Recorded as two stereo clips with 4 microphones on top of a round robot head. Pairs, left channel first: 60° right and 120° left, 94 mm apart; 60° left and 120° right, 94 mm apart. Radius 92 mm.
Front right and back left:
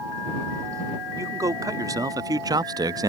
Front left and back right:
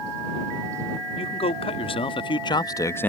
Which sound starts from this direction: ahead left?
A man speaking, at 1.2 s.